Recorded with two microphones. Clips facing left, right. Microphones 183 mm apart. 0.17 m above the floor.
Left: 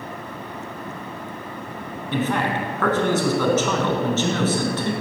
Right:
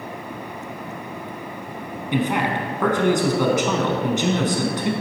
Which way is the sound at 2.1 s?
15° right (ahead or behind).